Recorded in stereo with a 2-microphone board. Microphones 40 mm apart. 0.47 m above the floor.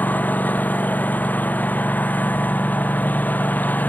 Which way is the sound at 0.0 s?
40° left (ahead or behind).